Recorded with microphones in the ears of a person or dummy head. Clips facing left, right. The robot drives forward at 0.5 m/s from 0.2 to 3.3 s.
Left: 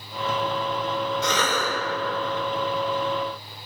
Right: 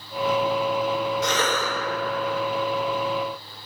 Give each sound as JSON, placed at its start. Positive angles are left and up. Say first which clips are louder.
{"t": 1.2, "sound": "a cough", "louder": "right 1 dB", "side_deg": 90, "distance_m": 1.1}